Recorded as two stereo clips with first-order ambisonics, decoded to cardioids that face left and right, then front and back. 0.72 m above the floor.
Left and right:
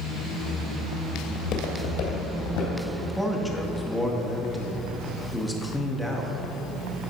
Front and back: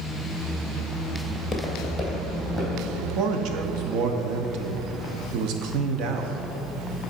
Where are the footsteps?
75° left, 0.9 m; by 2.8 s 95° left, 2.5 m.